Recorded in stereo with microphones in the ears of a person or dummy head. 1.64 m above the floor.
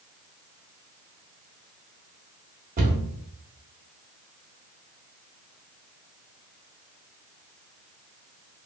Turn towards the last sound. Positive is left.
turn(degrees=-40)  # may be behind; listen again after turning